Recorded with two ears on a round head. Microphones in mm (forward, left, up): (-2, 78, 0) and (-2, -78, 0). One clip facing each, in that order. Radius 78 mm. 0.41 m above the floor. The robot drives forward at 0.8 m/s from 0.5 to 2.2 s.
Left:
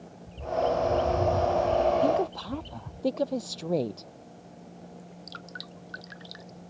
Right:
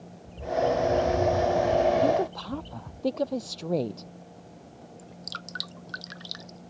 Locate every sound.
0.3 s a bird: 20° left (ahead or behind); by 3.0 s 25° left (ahead or behind)
2.0 s a woman speaking: 5° left (ahead or behind)
5.0 s dripping: 60° right (ahead or behind)